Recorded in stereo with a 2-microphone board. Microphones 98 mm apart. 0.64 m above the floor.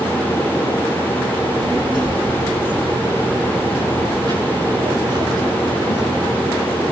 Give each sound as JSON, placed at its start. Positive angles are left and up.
{"t": 1.4, "sound": "a child speaking", "side_deg": -50, "distance_m": 4.5}